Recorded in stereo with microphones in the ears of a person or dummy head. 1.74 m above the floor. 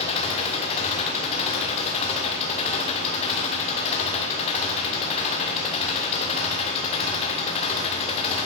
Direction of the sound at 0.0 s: 35° left (ahead or behind).